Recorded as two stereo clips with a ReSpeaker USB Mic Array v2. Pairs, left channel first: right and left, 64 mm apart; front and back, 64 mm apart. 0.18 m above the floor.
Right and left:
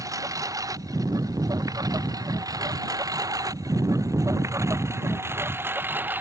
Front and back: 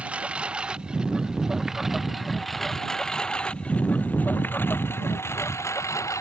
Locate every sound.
0.0 s a lawn mower: 110° left; by 6.2 s 30° left